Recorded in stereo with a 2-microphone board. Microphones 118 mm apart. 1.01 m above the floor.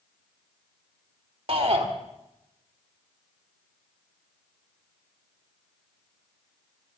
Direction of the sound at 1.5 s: 60° right (ahead or behind).